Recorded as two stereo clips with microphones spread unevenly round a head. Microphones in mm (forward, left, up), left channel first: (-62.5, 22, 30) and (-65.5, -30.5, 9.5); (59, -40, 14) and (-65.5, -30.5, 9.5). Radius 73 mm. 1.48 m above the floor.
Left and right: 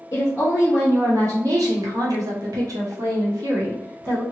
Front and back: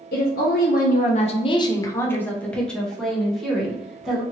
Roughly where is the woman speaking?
Ahead left.